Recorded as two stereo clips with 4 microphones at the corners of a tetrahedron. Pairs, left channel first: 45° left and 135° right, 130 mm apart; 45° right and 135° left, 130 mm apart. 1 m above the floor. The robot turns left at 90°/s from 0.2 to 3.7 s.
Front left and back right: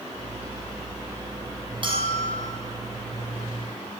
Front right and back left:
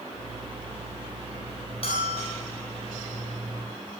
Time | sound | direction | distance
1.8 | a bell | 85° right | 6.5 m